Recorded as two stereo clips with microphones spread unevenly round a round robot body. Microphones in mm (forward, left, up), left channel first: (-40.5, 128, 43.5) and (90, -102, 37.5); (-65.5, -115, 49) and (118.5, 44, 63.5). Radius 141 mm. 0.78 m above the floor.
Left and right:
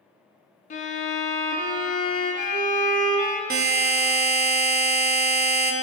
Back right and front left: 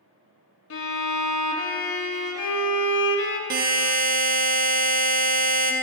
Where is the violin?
175° right, 0.6 m.